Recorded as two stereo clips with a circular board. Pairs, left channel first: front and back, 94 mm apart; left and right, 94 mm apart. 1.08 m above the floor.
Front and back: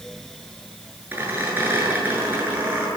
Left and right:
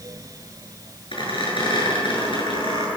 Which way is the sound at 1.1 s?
110° left.